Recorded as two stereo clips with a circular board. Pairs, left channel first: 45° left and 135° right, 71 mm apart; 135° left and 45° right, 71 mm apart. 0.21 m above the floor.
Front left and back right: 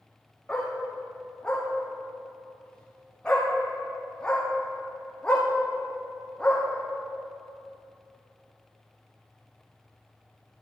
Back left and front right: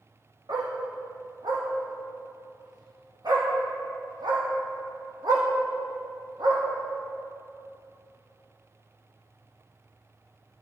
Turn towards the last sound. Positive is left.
turn(degrees=-30)